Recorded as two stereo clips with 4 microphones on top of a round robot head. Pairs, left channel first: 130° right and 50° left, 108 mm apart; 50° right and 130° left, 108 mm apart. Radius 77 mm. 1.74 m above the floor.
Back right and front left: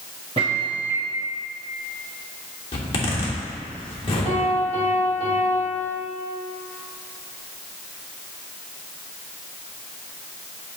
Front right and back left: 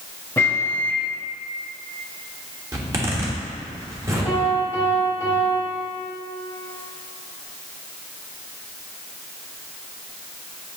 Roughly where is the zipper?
Behind.